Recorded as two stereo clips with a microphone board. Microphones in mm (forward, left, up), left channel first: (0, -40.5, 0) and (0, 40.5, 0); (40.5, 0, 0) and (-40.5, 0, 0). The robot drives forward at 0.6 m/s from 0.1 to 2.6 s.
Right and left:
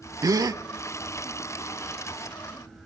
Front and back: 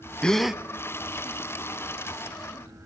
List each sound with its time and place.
0.2 s a gasp: 75° left, 0.6 m; by 0.6 s 105° left, 0.6 m